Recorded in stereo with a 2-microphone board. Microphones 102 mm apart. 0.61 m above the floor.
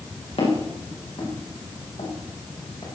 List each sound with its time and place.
0.4 s footsteps: 70° left (ahead or behind), 6.5 m; by 2.9 s 80° left, 5.5 m